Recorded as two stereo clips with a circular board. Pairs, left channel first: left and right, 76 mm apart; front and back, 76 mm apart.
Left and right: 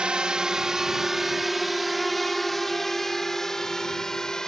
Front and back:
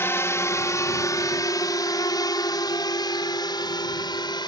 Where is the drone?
20° right; by 4.5 s 10° left.